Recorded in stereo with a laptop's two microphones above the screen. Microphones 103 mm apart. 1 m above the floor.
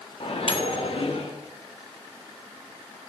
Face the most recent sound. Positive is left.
turn(degrees=65)  # may be behind; listen again after turning